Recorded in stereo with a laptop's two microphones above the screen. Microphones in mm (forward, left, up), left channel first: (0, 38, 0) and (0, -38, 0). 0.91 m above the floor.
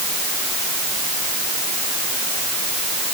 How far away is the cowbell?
I don't hear a cowbell.